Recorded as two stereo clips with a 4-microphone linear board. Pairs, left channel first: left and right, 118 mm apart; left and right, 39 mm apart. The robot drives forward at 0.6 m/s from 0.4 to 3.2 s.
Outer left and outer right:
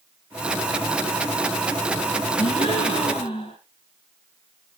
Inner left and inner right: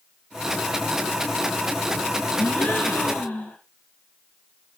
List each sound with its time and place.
2.4 s a gasp: 50° left (ahead or behind), 3.5 m; by 3.6 s 45° left (ahead or behind), 3.5 m